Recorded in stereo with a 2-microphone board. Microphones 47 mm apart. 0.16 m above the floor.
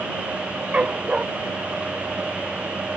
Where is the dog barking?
25° right (ahead or behind).